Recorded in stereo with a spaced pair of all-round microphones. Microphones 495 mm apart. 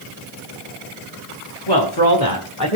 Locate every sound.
1.7 s a man speaking: 50° left (ahead or behind), 2.5 m; by 2.8 s 35° left (ahead or behind), 2.5 m